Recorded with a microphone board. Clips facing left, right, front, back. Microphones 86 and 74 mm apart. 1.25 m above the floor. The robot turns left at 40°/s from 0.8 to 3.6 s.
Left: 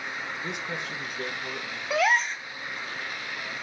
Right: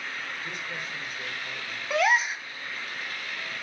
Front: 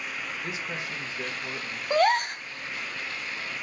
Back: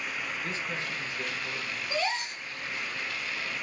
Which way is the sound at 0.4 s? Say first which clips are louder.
Left 3 dB, even; 75° left.